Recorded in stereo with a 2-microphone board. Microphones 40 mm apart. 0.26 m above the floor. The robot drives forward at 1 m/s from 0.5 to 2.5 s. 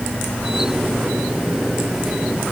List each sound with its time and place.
Only background noise.